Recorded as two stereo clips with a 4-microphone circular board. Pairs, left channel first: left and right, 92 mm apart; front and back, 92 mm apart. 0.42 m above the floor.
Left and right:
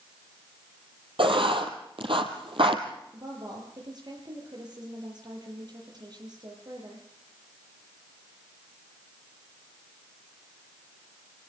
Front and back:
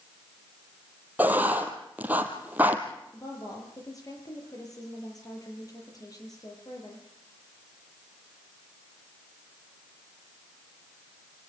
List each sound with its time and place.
1.2 s writing: 110° right, 3 m
3.1 s a woman speaking: 50° right, 9.5 m